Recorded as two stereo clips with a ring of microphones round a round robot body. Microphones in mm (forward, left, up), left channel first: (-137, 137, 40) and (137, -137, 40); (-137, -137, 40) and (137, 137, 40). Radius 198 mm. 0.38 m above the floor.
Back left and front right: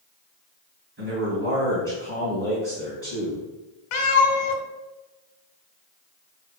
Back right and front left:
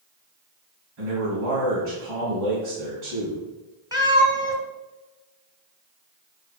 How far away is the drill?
I don't hear a drill.